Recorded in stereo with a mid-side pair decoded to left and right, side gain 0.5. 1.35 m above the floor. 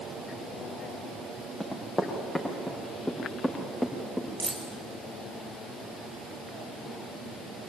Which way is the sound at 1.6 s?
20° left.